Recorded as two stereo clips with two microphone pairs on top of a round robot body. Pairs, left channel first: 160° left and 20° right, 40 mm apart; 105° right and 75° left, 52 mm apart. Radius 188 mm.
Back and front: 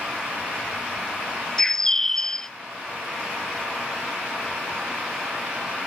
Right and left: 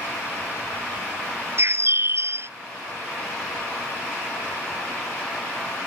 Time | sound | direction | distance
1.6 | a bird | 85° left | ?